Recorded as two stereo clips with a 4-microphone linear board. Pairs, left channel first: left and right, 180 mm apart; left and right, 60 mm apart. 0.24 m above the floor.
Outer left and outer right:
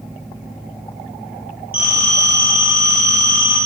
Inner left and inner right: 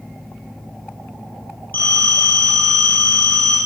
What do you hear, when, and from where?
1.7 s a phone ringing: 35° left (ahead or behind), 4.5 m